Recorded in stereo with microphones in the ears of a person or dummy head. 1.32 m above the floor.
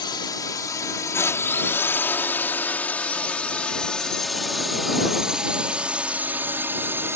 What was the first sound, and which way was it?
A drone, 20° left (ahead or behind).